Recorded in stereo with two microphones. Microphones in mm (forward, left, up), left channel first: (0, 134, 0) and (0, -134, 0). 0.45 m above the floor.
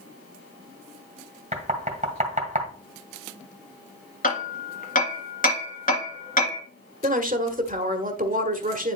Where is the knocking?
30° right (ahead or behind), 1.9 m.